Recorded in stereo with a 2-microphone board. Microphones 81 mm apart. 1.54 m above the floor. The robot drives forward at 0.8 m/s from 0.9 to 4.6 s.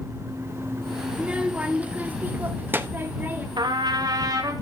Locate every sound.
1.1 s a child speaking: 15° right (ahead or behind), 1.6 m; by 3.5 s 20° right (ahead or behind), 1.0 m
3.6 s a trumpet: 65° right (ahead or behind), 1.5 m; by 4.5 s 45° right (ahead or behind), 2.0 m